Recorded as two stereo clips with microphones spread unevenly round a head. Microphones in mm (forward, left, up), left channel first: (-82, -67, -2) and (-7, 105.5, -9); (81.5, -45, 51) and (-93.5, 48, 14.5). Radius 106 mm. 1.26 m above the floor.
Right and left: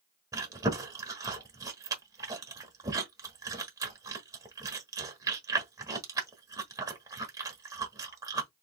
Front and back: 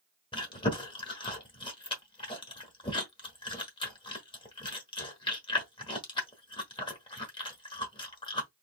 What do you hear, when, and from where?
0.3 s chewing: straight ahead, 1.1 m